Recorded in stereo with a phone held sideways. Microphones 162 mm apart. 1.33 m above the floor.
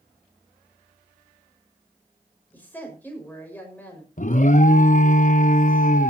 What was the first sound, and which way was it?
A woman speaking, 10° left (ahead or behind).